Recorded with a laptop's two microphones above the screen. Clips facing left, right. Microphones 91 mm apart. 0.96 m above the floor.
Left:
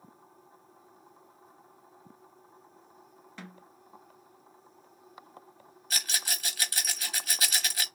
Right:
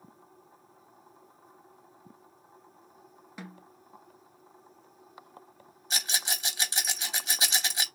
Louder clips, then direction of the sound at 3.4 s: Right 2 dB; 10° right (ahead or behind).